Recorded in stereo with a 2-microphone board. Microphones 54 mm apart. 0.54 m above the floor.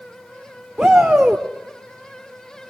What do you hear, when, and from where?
0.8 s a shout: 10° right (ahead or behind), 1.2 m